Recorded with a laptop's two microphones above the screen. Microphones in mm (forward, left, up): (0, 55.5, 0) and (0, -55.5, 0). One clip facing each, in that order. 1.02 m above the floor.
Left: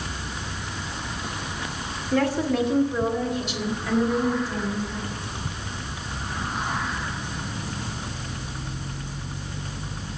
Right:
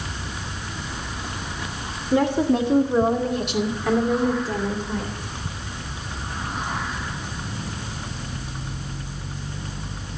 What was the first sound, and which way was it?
A woman speaking, 20° right (ahead or behind).